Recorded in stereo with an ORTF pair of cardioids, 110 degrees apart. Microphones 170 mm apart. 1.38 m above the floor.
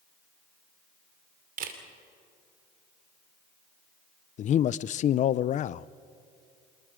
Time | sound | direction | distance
1.6 | a camera shutter | 55° right | 2.5 m
4.4 | a man speaking | 50° left | 0.5 m